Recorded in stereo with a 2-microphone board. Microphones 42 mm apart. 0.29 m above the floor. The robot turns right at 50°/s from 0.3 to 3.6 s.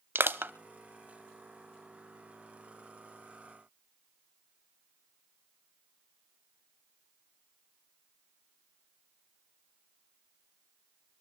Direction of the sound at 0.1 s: 60° right (ahead or behind).